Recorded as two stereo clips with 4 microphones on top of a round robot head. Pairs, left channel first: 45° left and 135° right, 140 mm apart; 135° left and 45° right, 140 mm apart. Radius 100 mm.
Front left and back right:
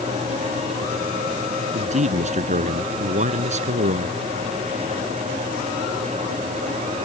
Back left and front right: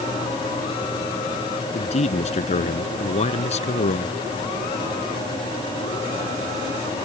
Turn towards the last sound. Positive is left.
turn(degrees=180)